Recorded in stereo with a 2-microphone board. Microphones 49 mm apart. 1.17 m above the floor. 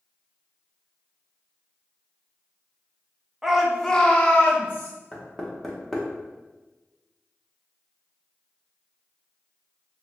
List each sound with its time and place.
3.4 s a shout: 15° right (ahead or behind), 0.6 m; by 4.9 s 40° left (ahead or behind), 0.9 m
5.1 s knocking: 10° left (ahead or behind), 0.6 m